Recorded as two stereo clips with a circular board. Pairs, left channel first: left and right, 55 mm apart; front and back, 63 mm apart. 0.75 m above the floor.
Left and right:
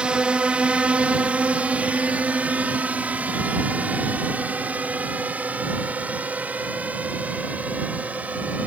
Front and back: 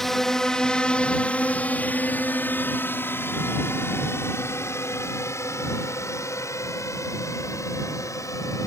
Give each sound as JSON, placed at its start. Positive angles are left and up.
{"t": 0.0, "sound": "a drone", "azimuth_deg": -80}